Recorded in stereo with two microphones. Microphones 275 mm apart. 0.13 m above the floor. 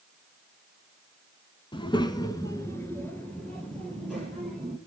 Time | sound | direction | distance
1.7 | a child speaking | 20° left (ahead or behind) | 0.8 m